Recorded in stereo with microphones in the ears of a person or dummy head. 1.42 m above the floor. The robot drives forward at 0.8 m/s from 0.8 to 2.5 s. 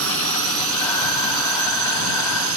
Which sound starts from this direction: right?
A drone, at 0.0 s.